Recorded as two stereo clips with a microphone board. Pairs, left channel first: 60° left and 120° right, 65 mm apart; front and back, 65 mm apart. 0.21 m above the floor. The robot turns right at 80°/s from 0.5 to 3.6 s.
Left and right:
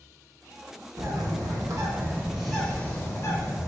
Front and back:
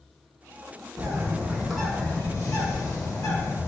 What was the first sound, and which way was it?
A bird, 150° right.